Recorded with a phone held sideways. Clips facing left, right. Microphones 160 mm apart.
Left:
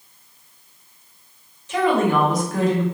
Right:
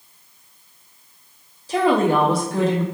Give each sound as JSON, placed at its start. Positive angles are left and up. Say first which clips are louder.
{"t": 1.7, "sound": "a woman speaking", "louder": "right 1 dB", "side_deg": -35, "distance_m": 0.5}